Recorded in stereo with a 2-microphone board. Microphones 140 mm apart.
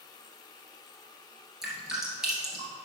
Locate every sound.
1.6 s dripping: 5° right (ahead or behind), 2 m